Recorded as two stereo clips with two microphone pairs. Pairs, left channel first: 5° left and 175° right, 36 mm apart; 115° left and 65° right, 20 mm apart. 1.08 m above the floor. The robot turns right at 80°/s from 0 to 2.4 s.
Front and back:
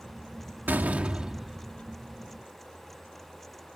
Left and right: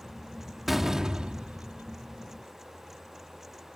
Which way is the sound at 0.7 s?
150° right.